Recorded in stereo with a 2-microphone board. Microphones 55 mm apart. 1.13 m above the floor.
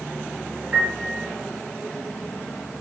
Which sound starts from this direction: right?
A piano, at 0.7 s.